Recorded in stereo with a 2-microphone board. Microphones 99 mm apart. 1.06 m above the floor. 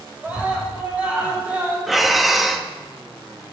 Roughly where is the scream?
Centre.